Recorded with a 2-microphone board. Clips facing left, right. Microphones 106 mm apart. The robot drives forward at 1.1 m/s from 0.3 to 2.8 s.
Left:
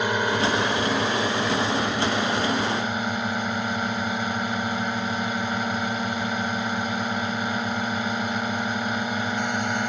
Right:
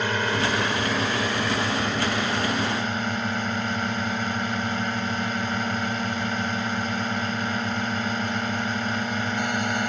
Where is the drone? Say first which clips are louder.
Left 2 dB; 15° left (ahead or behind); by 9.9 s 10° left (ahead or behind).